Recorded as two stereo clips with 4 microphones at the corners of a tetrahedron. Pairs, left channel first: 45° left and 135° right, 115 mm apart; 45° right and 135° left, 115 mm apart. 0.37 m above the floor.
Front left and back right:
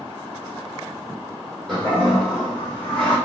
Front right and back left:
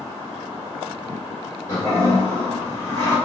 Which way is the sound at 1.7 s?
35° right.